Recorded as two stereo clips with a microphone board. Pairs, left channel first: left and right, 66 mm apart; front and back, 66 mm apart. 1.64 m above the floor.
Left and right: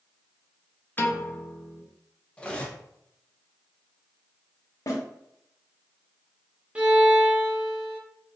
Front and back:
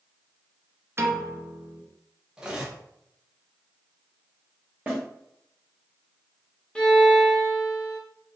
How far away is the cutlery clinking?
About 0.7 m.